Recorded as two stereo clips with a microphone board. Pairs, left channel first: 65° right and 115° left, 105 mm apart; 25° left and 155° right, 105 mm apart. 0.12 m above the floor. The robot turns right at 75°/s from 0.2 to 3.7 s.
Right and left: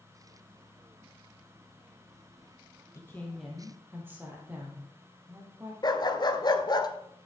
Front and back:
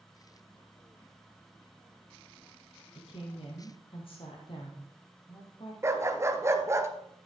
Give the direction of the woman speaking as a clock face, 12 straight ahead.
12 o'clock.